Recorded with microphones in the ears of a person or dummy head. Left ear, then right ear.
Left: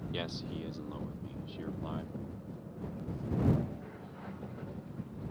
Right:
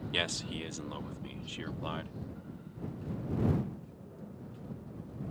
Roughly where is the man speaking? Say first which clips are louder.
Right 7 dB; right.